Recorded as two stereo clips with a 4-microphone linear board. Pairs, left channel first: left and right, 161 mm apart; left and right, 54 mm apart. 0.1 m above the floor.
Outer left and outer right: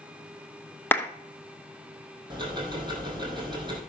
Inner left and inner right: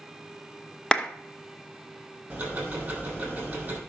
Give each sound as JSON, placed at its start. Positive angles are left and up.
{"t": 0.9, "sound": "a clap", "side_deg": 15, "distance_m": 0.9}
{"t": 2.3, "sound": "ticking", "side_deg": -25, "distance_m": 3.0}